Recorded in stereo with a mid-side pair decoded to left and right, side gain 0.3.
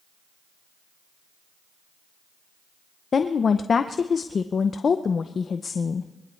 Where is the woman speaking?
60° left, 0.7 m.